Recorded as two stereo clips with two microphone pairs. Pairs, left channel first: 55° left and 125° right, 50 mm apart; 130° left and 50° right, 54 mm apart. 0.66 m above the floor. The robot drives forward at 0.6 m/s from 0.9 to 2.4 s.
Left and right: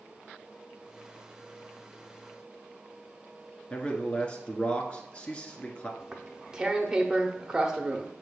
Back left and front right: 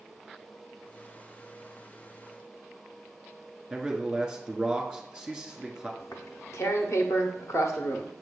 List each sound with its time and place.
3.7 s a man speaking: 20° left, 1.3 m
6.0 s tearing paper: 155° left, 0.7 m